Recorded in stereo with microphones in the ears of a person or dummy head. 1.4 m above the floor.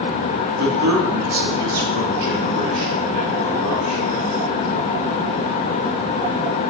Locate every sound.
0.6 s a man speaking: 70° right (ahead or behind), 2.5 m; by 4.2 s 50° right (ahead or behind), 4.5 m